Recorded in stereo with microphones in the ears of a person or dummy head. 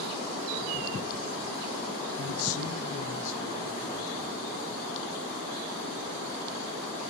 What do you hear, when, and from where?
2.2 s a man speaking: 70° left (ahead or behind), 0.7 m; by 4.4 s 75° left (ahead or behind), 3 m